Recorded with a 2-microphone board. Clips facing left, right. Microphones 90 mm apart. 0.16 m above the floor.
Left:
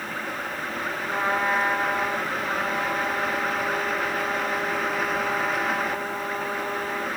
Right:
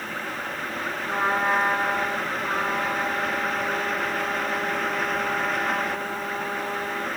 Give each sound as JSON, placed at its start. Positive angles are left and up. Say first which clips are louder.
{"t": 1.1, "sound": "a trumpet", "louder": "right 1 dB", "side_deg": -35, "distance_m": 3.0}